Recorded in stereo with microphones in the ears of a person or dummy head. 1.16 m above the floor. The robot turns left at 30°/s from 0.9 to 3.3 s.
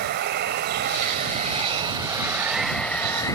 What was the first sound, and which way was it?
Running water, 130° right.